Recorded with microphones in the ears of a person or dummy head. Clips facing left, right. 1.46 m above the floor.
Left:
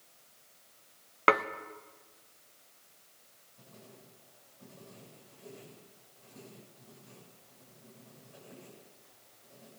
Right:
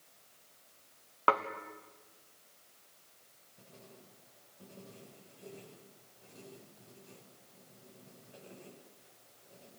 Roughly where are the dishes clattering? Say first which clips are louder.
Left 4 dB; left.